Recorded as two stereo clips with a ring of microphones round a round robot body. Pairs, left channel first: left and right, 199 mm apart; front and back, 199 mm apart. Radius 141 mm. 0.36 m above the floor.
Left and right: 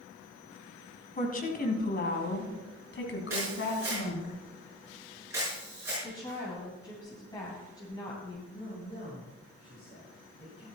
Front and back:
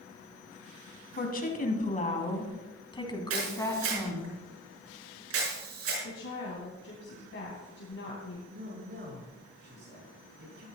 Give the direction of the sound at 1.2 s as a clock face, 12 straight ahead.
11 o'clock.